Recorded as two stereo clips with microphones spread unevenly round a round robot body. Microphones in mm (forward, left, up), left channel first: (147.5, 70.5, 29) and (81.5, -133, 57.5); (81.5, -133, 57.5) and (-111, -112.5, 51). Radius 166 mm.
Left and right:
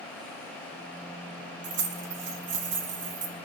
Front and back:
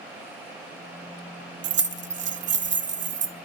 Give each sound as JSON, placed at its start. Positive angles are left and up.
{"t": 1.6, "sound": "keys jangling", "azimuth_deg": -160, "distance_m": 0.6}